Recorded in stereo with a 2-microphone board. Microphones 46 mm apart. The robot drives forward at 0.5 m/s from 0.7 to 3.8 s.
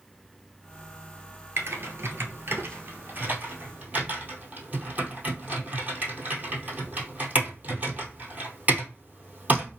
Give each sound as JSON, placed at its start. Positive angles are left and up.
{"t": 1.6, "sound": "typing on a keyboard", "side_deg": -65, "distance_m": 0.9}